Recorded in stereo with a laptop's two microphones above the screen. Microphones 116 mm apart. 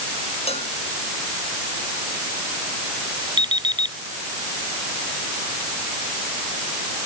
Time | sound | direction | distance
0.5 | a cowbell | 60° left (ahead or behind) | ?
3.4 | an alarm clock | 40° right (ahead or behind) | ?